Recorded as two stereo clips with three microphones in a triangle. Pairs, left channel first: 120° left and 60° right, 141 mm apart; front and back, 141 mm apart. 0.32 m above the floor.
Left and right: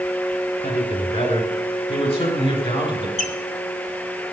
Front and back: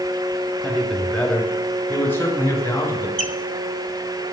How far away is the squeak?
About 1.2 m.